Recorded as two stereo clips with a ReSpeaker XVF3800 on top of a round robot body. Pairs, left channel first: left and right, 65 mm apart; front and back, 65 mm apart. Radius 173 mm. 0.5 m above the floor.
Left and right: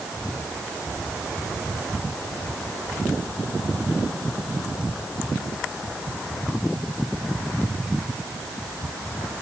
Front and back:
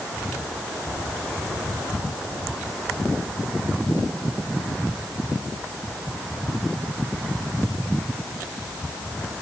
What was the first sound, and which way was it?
Only background noise.